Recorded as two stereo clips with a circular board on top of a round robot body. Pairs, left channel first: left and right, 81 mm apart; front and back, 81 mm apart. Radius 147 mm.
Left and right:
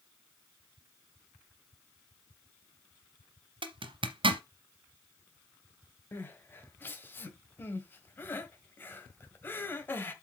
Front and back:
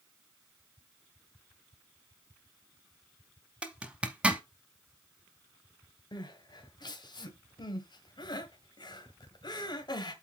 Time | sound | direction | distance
3.6 | a zipper | 100° right | 1.0 m
6.1 | crying | 25° left | 1.7 m